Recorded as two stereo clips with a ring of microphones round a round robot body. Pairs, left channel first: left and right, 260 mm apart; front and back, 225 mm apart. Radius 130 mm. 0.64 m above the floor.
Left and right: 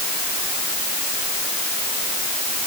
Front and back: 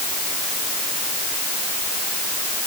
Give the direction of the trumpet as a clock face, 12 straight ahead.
I don't hear a trumpet.